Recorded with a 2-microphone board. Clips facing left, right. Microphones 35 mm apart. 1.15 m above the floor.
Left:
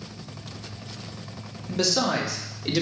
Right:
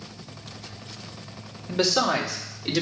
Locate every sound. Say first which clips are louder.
1.7 s a man speaking: right 2 dB; 25° right (ahead or behind), 1.5 m; by 2.8 s 5° left (ahead or behind), 1.6 m